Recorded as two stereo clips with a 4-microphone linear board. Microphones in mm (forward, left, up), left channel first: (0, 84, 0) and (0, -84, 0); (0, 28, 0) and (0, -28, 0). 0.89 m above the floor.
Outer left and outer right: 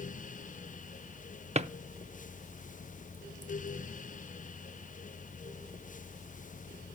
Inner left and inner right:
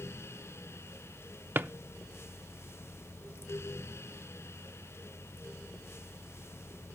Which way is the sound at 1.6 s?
40° right (ahead or behind).